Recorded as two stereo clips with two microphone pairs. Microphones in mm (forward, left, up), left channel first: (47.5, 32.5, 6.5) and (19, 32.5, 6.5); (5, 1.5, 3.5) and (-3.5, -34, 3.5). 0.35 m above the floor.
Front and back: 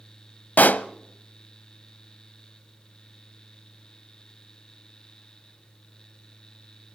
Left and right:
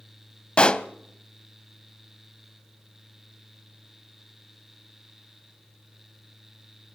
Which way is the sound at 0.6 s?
15° left.